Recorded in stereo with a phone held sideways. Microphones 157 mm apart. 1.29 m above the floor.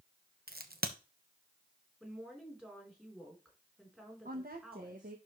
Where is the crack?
80° right, 1.1 m.